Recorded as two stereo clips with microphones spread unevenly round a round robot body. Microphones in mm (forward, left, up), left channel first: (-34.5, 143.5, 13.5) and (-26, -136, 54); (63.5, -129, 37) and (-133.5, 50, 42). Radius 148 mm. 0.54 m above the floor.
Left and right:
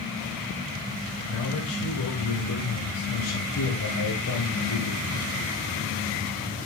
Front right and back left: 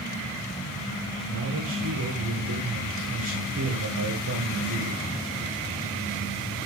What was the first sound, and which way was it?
A man speaking, 95° left.